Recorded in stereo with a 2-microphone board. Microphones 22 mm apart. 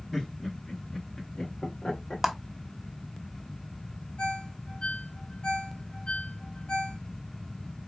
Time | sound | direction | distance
0.1 | laughter | 35° left (ahead or behind) | 1.4 m
2.2 | a clap | 10° right (ahead or behind) | 0.9 m
4.2 | a ringtone | 65° left (ahead or behind) | 2.0 m